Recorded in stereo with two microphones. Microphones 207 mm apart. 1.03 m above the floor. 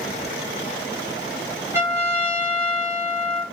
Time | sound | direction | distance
1.7 | a trumpet | 10° right (ahead or behind) | 2 m